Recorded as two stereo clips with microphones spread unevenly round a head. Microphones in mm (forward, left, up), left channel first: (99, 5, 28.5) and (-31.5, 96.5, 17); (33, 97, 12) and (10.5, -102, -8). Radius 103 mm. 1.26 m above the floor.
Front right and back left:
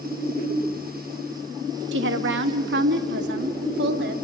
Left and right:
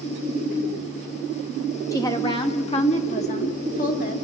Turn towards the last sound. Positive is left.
turn(degrees=135)